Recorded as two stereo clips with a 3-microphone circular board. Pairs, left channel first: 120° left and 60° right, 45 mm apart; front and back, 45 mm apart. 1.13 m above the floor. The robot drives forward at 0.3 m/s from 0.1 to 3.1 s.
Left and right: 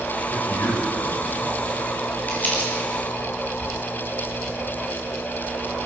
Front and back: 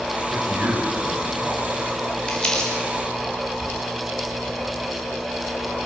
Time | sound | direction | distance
0.3 | a man speaking | 135° left | 5.5 m
2.3 | crumpling | 70° left | 5.5 m